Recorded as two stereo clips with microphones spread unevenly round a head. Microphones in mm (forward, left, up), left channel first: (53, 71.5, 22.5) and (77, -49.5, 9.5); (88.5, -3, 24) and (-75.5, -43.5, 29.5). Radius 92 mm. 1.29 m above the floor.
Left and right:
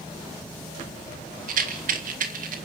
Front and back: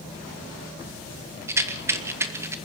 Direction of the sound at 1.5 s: 90° right.